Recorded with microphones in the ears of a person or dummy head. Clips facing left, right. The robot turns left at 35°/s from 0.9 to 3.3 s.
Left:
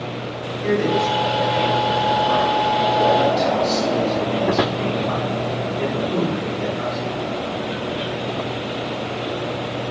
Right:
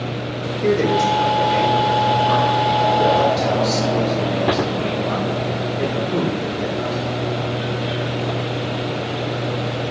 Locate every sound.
0.6 s a man speaking: 90° right, 5.5 m; by 7.1 s 175° right, 5.5 m